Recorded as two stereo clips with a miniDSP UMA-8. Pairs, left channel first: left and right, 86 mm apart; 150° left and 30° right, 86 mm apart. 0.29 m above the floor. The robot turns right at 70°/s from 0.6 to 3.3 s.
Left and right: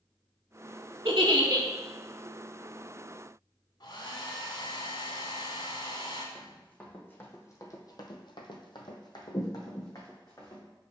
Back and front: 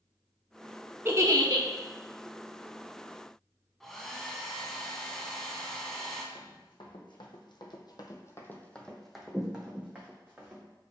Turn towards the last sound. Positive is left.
turn(degrees=35)